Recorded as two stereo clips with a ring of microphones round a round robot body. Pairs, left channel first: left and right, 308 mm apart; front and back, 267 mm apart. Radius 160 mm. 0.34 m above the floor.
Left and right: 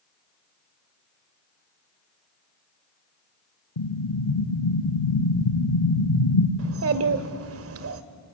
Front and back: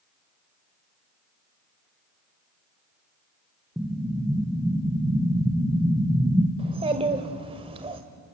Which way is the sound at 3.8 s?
95° left.